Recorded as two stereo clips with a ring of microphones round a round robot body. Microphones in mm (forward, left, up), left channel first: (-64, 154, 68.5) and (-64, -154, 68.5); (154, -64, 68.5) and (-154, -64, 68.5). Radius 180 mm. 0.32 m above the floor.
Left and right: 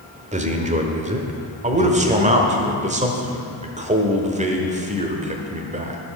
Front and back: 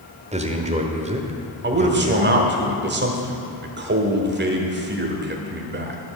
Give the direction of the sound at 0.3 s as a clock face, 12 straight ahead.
4 o'clock.